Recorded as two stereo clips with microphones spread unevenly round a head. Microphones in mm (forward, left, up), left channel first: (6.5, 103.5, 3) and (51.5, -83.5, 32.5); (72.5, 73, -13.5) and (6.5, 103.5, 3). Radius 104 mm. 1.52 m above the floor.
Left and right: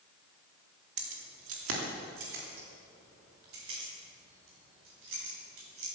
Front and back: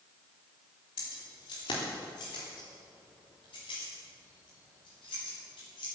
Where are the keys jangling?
70° right, 2 m; by 5.9 s 55° right, 7.5 m.